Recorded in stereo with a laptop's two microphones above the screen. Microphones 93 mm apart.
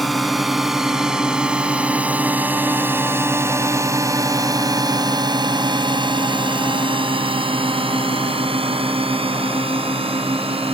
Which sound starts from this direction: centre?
A drone, at 0.0 s.